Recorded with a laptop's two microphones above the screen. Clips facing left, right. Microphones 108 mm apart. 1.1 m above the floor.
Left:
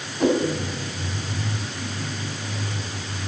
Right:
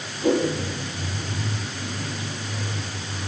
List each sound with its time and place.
0.2 s a whoosh: 70° left (ahead or behind), 3.5 m